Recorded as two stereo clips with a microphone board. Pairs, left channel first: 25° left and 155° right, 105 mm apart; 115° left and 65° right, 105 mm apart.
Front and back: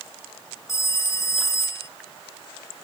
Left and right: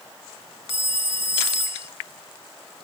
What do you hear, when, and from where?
0.7 s a phone ringing: 40° right